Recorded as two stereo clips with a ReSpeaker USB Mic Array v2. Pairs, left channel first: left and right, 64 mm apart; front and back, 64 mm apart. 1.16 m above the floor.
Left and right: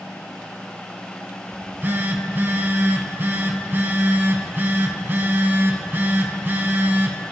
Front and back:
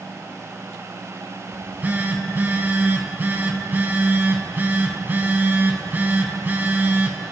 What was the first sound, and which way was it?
A phone buzzing, 130° right.